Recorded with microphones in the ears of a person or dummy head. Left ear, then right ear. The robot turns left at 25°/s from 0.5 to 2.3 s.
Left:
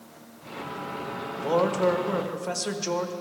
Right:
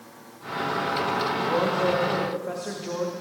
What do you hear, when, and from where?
1.4 s a man speaking: 65° left (ahead or behind), 1.4 m; by 3.1 s 85° left, 1.4 m